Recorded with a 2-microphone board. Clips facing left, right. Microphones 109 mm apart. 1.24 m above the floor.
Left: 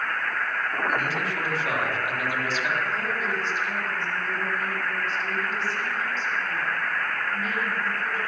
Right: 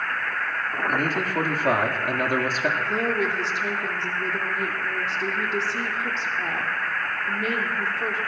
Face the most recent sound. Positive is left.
turn(degrees=-85)